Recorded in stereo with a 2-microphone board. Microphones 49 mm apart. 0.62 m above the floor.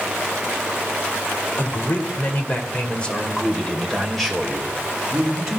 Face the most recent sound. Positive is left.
turn(degrees=-10)  # may be behind; listen again after turning